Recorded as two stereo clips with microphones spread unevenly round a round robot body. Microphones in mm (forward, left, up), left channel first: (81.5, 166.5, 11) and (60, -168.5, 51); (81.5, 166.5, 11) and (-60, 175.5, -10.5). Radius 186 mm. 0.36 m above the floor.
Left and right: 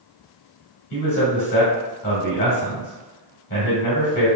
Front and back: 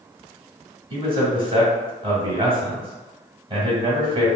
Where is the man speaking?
135° left, 1.2 m.